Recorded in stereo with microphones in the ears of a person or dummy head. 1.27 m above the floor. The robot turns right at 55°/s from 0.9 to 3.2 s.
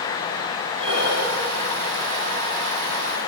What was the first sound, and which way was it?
Breathing, 35° right (ahead or behind).